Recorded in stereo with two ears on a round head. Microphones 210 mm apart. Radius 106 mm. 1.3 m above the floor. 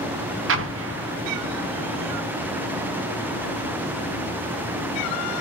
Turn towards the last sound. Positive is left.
turn(degrees=-55)  # may be behind; listen again after turning